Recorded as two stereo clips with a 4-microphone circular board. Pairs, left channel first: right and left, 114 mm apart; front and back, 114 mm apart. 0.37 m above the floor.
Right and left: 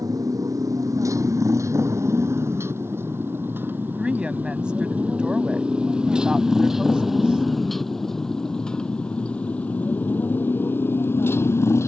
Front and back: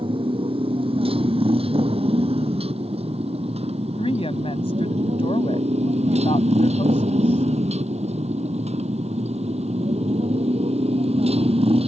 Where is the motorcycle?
145° left; by 11.9 s 155° right.